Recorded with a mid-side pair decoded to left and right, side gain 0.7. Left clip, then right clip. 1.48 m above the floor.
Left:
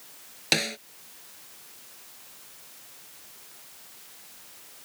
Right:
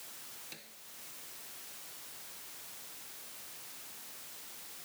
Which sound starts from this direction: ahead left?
A snare drum, at 0.5 s.